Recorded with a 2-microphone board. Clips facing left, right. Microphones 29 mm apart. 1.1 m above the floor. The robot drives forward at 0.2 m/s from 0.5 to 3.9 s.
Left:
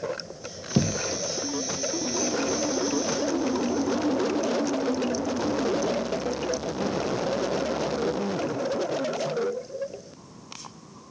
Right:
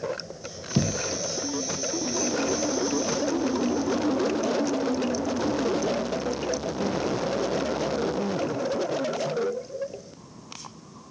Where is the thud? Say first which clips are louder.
Left 1 dB; 30° left (ahead or behind), 0.5 m.